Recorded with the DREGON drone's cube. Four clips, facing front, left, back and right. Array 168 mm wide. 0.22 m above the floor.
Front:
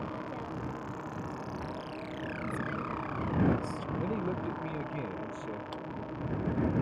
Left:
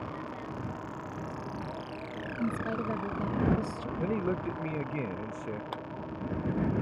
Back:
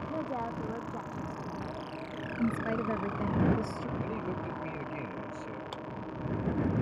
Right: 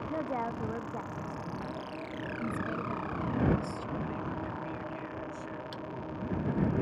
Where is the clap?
90° left.